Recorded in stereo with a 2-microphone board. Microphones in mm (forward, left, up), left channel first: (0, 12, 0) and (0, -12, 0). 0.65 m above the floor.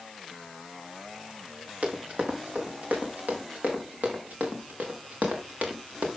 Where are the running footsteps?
65° right (ahead or behind), 5 m; by 6.1 s 70° right (ahead or behind), 5 m.